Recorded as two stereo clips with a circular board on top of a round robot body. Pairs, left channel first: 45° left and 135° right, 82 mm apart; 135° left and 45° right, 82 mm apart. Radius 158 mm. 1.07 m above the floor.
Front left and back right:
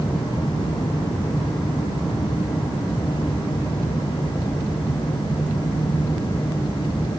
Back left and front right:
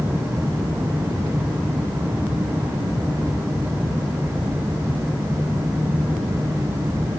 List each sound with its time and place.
Only background noise.